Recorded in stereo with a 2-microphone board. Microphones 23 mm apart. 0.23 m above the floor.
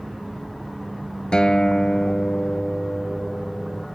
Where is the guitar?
45° left (ahead or behind).